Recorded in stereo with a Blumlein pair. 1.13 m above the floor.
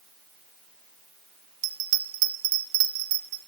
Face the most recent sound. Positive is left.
turn(degrees=-45)